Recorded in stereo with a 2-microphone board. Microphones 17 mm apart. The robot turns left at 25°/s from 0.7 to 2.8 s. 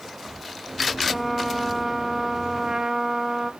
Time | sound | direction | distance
1.1 | a trumpet | 5° left | 0.7 m